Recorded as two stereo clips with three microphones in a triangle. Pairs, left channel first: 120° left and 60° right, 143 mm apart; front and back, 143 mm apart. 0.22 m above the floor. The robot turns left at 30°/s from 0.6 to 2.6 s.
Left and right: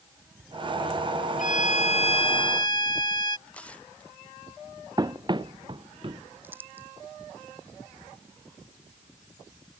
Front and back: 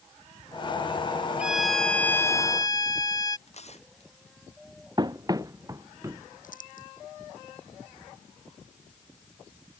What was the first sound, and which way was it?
A violin, 100° left.